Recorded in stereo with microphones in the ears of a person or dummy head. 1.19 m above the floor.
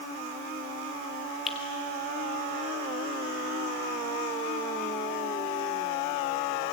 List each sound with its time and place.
1.5 s a finger snap: centre (ahead or behind), 2.5 m